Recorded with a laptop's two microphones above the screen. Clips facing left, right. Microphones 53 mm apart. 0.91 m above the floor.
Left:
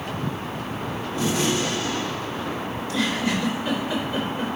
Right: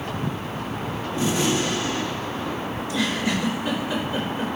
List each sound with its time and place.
1.2 s a gunshot: 30° right (ahead or behind), 1.8 m
2.8 s a giggle: 20° right (ahead or behind), 3 m